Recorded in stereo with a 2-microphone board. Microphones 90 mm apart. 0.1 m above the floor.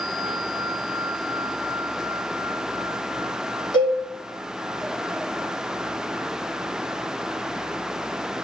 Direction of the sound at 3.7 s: 60° left (ahead or behind).